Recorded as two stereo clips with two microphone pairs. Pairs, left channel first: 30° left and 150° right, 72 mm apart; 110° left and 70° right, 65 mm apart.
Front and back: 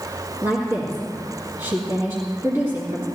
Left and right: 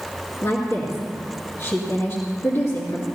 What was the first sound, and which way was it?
A woman speaking, 155° left.